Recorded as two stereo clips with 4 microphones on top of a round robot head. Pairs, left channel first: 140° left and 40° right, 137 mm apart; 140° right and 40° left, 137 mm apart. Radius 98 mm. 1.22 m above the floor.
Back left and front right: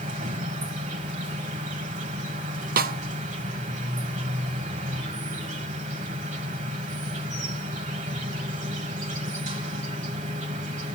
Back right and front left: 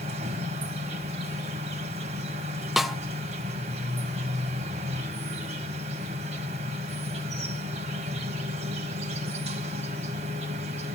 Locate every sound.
0.0 s an insect: 5° right, 2 m
2.8 s a snare drum: 50° right, 0.8 m